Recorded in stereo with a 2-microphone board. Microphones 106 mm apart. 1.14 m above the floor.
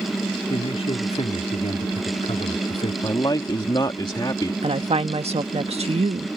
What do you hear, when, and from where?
0.5 s a man speaking: 75° left (ahead or behind)
3.0 s a man speaking: 45° left (ahead or behind)
4.6 s a woman speaking: 75° right (ahead or behind)